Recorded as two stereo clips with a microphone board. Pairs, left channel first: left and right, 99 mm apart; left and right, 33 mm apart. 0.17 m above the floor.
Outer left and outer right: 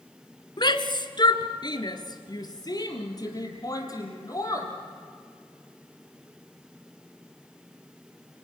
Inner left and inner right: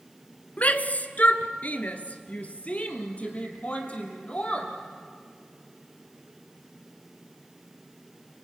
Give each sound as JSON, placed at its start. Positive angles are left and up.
{"t": 0.6, "sound": "a shout", "side_deg": 50, "distance_m": 1.5}